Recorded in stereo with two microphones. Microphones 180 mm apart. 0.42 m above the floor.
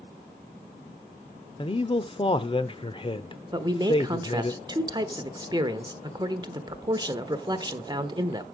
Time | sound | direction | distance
1.6 | a man speaking | 30° left (ahead or behind) | 0.8 m
3.5 | a man speaking | 25° right (ahead or behind) | 1.0 m